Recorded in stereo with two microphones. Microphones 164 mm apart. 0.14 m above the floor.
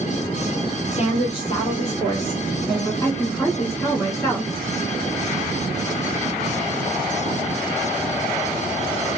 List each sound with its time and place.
0.9 s a woman speaking: 40° left (ahead or behind), 1.5 m; by 2.9 s 5° left (ahead or behind), 2.0 m
3.0 s a woman speaking: 15° left (ahead or behind), 1.6 m